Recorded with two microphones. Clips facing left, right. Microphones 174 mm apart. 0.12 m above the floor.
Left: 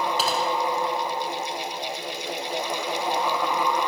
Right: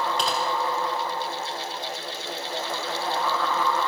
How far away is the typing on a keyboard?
About 5.5 m.